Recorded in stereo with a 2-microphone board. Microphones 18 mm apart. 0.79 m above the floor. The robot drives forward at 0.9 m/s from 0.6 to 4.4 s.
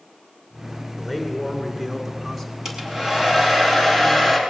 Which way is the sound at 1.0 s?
10° right (ahead or behind).